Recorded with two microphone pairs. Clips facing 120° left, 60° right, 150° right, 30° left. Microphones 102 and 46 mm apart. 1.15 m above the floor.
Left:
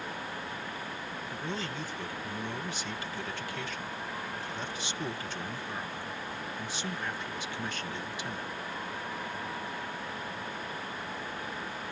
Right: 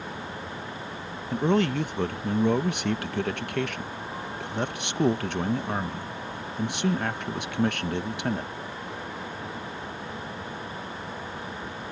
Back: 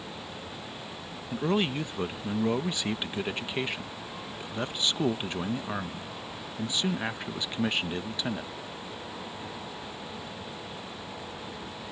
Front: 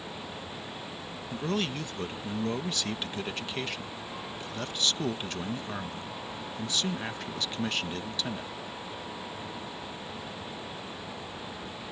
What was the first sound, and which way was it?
A man speaking, 80° right.